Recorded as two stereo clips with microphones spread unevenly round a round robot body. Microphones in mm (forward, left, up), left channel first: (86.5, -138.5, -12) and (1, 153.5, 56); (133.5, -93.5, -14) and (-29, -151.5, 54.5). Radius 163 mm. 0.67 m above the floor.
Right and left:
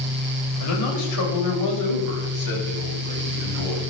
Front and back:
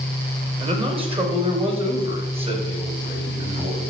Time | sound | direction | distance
0.6 | a man speaking | 95° right | 3.5 m